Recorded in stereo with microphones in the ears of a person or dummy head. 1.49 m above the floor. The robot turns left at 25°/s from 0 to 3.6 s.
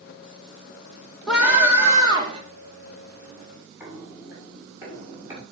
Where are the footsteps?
5° right (ahead or behind), 5.5 m; by 5.4 s 15° right (ahead or behind), 7 m.